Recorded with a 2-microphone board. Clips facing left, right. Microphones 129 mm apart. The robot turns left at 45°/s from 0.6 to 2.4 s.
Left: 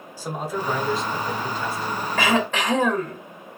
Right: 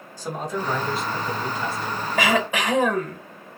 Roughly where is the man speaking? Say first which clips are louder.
Even; ahead.